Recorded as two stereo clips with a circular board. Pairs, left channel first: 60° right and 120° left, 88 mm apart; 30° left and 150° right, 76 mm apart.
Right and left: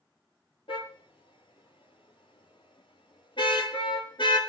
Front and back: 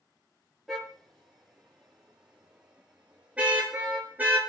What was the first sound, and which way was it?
A car horn, 60° right.